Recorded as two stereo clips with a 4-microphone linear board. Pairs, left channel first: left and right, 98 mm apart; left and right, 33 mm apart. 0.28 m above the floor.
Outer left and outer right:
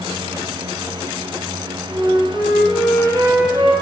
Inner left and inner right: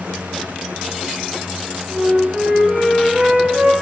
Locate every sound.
1.9 s a flute: 65° right (ahead or behind), 1.3 m